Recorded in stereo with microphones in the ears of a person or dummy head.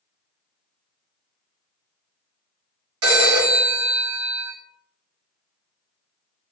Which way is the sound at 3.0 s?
85° right.